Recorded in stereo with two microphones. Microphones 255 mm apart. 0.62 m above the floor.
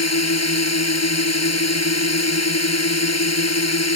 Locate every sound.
0.0 s a drone: 80° left